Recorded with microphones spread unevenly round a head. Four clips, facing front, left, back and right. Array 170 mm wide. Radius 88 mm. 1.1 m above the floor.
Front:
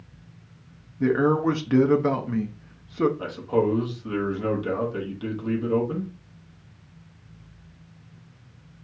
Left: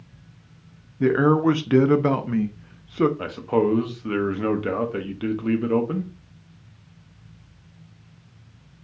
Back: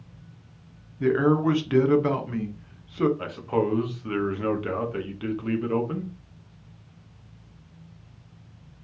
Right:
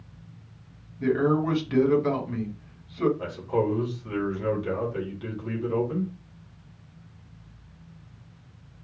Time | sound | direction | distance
1.0 | a man speaking | 75° left | 0.8 m
3.2 | a man speaking | 85° left | 1.1 m